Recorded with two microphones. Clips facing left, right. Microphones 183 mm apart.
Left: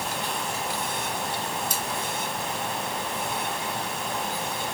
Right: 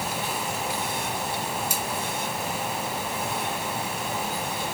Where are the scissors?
10° right (ahead or behind), 2.5 m.